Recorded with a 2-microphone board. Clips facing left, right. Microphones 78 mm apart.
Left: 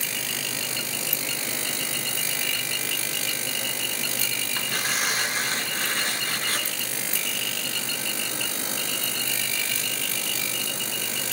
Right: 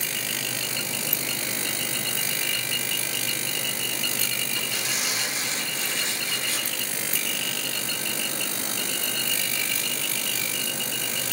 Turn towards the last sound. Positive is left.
turn(degrees=55)  # may be behind; listen again after turning